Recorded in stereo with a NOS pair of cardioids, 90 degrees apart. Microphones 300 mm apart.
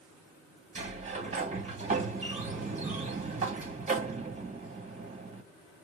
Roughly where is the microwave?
I don't hear a microwave.